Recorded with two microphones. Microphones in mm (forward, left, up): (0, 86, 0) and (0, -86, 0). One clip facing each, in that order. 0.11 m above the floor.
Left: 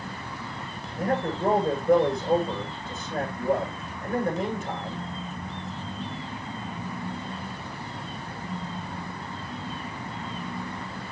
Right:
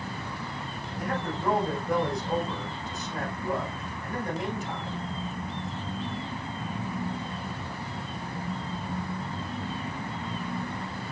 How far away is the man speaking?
About 6.5 m.